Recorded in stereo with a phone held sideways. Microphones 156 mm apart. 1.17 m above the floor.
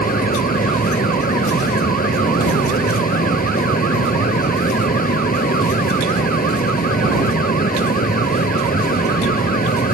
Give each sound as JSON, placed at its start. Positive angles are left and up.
{"t": 0.0, "sound": "a fan", "side_deg": 65}